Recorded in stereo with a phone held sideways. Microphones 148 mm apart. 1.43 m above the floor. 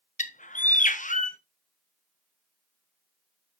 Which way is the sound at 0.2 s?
55° left (ahead or behind).